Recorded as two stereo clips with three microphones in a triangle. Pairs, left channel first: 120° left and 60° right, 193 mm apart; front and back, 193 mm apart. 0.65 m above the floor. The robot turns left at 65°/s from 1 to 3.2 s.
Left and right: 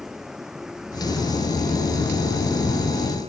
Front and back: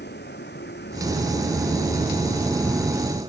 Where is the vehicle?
30° left; by 3.3 s 115° right.